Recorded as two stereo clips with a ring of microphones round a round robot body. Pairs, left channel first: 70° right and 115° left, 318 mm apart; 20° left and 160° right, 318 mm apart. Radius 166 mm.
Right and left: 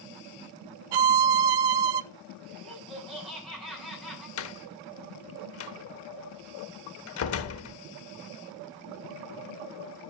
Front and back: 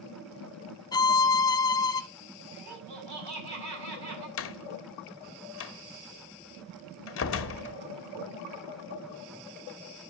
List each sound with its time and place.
0.9 s a violin: 100° left, 0.7 m
2.5 s laughter: 155° right, 7.5 m
4.4 s a door slam: 25° right, 0.8 m